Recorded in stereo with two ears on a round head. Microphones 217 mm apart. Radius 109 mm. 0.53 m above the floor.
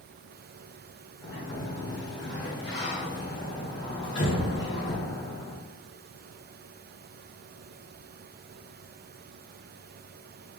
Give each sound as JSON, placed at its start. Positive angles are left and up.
{"t": 1.2, "sound": "a sliding door", "side_deg": 50, "distance_m": 1.5}